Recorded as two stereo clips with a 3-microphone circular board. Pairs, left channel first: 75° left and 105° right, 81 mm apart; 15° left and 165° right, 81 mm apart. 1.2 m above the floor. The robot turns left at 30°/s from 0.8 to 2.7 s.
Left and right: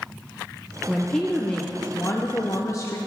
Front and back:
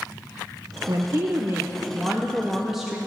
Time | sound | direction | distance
0.9 | a woman speaking | 165° left | 0.7 m